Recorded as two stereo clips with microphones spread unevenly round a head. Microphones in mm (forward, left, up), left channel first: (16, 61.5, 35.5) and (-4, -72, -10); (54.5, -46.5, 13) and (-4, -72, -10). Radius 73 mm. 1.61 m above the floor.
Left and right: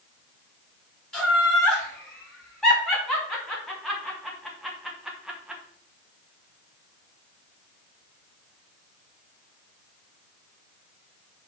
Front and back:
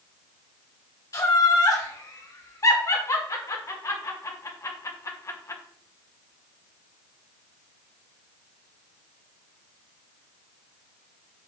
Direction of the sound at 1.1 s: Straight ahead.